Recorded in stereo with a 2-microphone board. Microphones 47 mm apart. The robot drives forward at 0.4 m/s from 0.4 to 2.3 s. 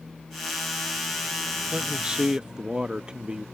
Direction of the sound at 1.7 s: 25° right (ahead or behind).